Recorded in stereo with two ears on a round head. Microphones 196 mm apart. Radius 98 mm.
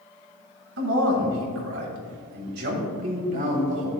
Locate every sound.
0.8 s a man speaking: 70° right (ahead or behind), 3 m; by 3.9 s 35° right (ahead or behind), 3 m